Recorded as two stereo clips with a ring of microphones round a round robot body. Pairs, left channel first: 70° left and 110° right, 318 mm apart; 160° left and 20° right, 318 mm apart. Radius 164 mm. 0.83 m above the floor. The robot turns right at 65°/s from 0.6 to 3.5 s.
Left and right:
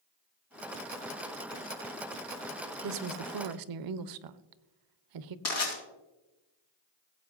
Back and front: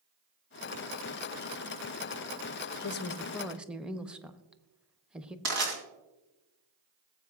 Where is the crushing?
20° left, 3 m.